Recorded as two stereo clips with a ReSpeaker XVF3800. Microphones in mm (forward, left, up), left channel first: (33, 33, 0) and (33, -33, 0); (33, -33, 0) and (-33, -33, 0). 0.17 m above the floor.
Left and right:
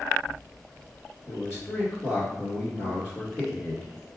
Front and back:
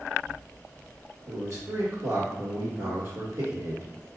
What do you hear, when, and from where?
1.3 s a man speaking: 135° left, 1.8 m